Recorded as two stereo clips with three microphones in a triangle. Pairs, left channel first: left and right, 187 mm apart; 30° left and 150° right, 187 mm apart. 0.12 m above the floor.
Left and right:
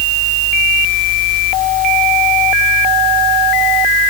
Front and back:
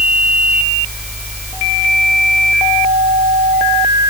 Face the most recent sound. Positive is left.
No sound to turn to.